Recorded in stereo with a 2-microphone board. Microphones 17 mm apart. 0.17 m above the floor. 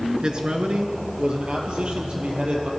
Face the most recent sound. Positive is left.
turn(degrees=-75)  # may be behind; listen again after turning